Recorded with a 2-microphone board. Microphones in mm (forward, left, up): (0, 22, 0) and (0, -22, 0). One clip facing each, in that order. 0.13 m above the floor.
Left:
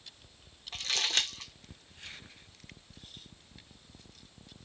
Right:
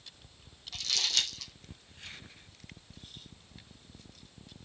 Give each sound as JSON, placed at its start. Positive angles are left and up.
{"t": 0.7, "sound": "crumpling", "side_deg": 35, "distance_m": 0.9}